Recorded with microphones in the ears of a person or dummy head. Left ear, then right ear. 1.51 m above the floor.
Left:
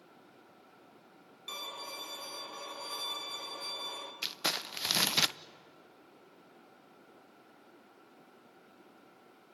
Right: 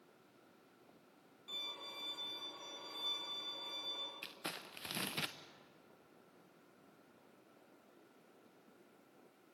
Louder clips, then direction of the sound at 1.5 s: Left 4 dB; 60° left (ahead or behind).